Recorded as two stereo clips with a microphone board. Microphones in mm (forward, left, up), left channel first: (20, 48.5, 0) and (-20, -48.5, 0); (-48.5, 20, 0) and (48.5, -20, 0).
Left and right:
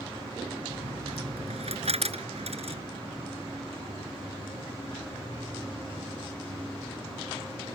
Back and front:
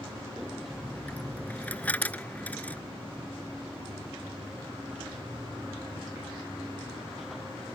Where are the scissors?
20° right.